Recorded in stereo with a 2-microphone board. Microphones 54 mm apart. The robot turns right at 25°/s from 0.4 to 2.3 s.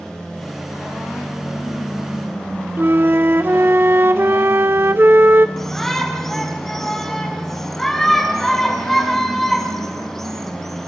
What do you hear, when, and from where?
2.8 s a flute: 45° right (ahead or behind), 1.0 m
5.6 s a shout: 10° left (ahead or behind), 4 m